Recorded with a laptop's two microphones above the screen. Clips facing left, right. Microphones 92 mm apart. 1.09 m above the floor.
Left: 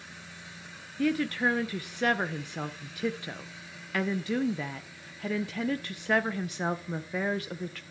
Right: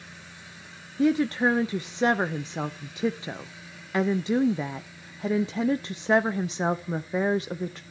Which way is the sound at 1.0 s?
20° right (ahead or behind).